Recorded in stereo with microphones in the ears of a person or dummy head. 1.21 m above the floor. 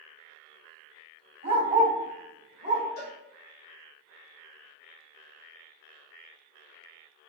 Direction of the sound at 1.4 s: 40° right (ahead or behind).